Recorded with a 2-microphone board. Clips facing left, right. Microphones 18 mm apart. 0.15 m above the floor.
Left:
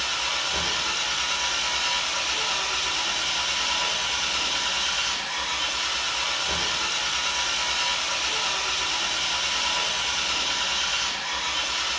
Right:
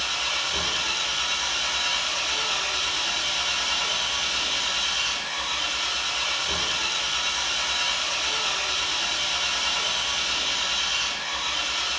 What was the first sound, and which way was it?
An engine running, centre (ahead or behind).